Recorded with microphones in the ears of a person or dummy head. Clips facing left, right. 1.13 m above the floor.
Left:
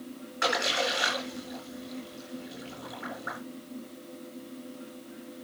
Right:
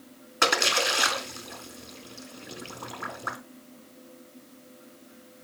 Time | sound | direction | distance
0.4 | a splash | 80° right | 4 m